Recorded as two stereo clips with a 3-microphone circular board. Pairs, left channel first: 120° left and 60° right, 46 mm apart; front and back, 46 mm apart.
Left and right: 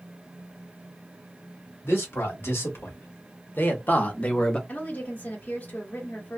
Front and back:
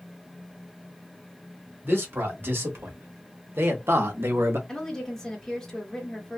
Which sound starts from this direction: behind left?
A man speaking, at 1.8 s.